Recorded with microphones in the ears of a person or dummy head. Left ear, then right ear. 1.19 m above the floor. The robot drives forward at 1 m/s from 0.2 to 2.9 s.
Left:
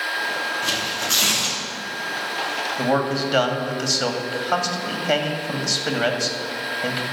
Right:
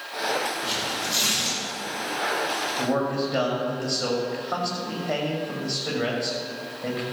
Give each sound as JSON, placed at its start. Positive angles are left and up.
{"t": 0.6, "sound": "tearing paper", "side_deg": 50, "distance_m": 2.5}
{"t": 2.8, "sound": "a man speaking", "side_deg": 55, "distance_m": 2.0}